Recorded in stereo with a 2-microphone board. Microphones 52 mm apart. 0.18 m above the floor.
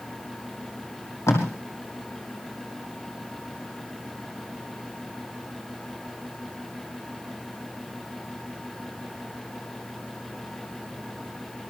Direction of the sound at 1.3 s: 65° left (ahead or behind).